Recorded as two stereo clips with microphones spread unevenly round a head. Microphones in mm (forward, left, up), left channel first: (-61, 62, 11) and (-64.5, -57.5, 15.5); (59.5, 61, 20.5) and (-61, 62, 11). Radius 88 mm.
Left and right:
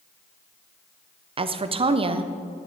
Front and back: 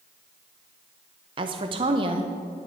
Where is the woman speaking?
130° right, 0.5 m.